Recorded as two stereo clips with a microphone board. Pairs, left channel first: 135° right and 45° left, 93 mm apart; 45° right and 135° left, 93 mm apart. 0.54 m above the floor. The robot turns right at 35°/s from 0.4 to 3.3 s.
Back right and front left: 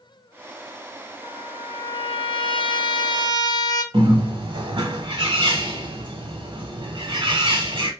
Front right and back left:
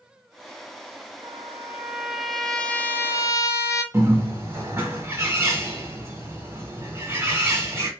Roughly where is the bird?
Left.